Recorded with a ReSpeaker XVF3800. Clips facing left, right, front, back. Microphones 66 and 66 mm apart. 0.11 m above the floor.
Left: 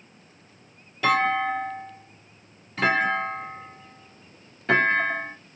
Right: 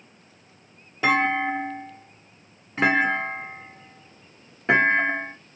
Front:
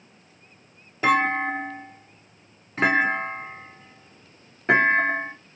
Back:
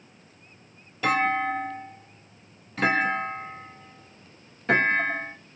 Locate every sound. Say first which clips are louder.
1.0 s a clunk: even, front 3 dB; 40° right, 1.5 m